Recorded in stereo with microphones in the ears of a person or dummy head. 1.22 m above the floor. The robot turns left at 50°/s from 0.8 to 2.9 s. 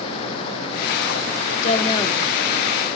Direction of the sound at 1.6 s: 45° left (ahead or behind).